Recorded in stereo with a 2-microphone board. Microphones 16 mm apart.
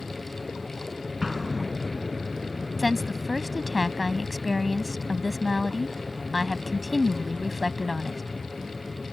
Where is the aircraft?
5° right (ahead or behind).